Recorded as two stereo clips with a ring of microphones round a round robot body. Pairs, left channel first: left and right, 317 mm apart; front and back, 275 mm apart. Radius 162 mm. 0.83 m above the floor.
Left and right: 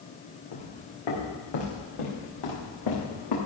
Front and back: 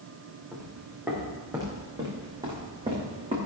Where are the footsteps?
95° left, 4 m; by 3.4 s 110° left, 4.5 m.